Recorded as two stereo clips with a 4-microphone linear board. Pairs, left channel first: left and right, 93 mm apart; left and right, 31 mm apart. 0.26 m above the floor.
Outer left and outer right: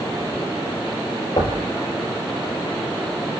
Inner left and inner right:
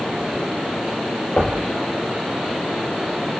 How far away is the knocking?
About 4 m.